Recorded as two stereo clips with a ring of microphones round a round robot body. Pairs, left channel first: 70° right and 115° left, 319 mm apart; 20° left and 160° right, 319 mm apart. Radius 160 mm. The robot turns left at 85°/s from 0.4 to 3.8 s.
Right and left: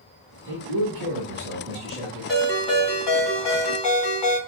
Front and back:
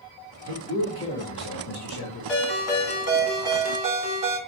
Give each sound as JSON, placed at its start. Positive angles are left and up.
{"t": 0.5, "sound": "a man speaking", "azimuth_deg": 145, "distance_m": 1.6}
{"t": 2.3, "sound": "a ringtone", "azimuth_deg": 25, "distance_m": 2.5}